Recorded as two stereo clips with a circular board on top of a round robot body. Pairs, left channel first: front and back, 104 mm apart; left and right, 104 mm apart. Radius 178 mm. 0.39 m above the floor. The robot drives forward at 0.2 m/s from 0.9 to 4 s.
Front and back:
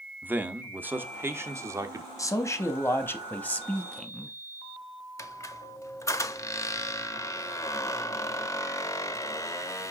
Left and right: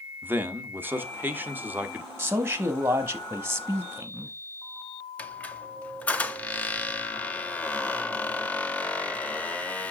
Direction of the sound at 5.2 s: 25° left.